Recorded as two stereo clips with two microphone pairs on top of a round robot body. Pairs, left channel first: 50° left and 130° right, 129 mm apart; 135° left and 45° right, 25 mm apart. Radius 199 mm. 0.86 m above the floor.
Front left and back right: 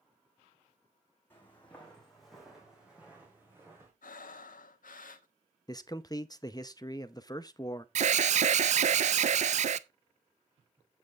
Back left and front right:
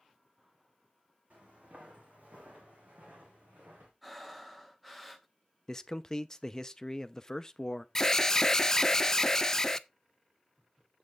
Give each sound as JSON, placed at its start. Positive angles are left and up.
{"t": 1.3, "sound": "footsteps", "azimuth_deg": -20, "distance_m": 2.5}
{"t": 4.0, "sound": "breathing", "azimuth_deg": 40, "distance_m": 0.7}
{"t": 5.7, "sound": "a man speaking", "azimuth_deg": 90, "distance_m": 0.9}
{"t": 8.0, "sound": "an alarm", "azimuth_deg": -160, "distance_m": 0.6}